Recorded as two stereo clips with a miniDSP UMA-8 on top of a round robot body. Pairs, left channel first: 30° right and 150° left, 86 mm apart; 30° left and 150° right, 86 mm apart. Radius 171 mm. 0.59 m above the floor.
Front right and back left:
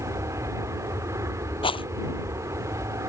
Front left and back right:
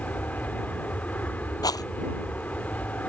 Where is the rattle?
15° right.